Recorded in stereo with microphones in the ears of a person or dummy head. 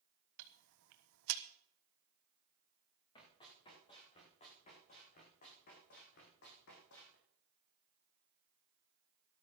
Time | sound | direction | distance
0.4 | ticking | 70° right (ahead or behind) | 1.4 m
3.1 | running footsteps | 25° left (ahead or behind) | 8.5 m